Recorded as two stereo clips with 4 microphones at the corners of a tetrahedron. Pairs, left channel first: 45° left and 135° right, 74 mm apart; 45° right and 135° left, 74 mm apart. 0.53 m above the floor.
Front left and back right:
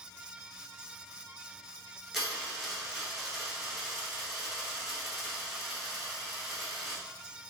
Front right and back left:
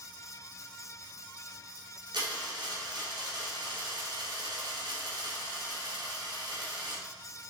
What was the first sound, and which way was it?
A dropped coin, 135° left.